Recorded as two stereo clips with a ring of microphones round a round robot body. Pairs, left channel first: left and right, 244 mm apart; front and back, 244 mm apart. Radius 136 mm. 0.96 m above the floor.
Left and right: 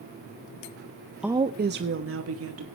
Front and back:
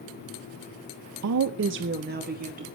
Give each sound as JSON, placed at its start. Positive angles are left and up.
{"t": 1.2, "sound": "a woman speaking", "azimuth_deg": -175, "distance_m": 0.7}